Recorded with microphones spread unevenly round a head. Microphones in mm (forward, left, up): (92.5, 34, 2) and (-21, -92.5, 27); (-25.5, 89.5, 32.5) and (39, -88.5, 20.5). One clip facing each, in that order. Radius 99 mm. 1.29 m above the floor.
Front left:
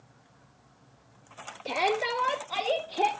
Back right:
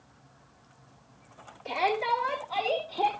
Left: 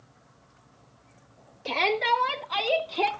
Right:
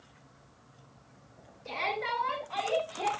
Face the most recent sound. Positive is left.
turn(degrees=125)